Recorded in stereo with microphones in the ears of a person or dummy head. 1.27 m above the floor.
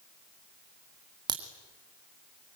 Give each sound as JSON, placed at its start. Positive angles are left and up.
{"t": 1.3, "sound": "a crack", "side_deg": -20, "distance_m": 2.5}